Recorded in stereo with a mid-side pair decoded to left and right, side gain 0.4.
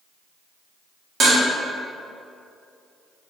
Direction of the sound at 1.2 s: 55° right.